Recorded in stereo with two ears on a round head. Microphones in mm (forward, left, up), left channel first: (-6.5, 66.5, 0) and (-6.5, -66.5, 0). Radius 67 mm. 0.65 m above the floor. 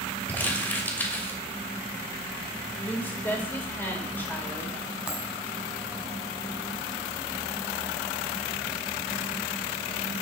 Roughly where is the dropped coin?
Centre.